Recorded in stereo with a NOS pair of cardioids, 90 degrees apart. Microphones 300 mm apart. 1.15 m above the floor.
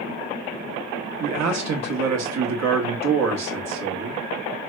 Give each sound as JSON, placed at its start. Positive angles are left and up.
{"t": 1.2, "sound": "a man speaking", "azimuth_deg": -60, "distance_m": 1.4}